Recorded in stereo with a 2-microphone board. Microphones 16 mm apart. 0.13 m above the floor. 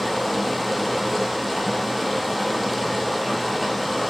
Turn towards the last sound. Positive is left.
turn(degrees=5)  # may be behind; listen again after turning